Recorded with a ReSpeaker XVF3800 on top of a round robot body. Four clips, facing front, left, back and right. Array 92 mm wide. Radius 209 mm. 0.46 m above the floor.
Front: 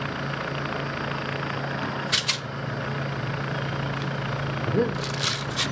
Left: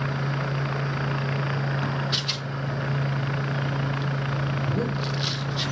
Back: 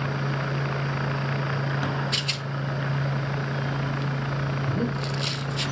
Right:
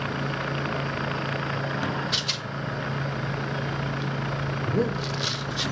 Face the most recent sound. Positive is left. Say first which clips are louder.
# right 5 dB, front 6 dB
turn(degrees=-20)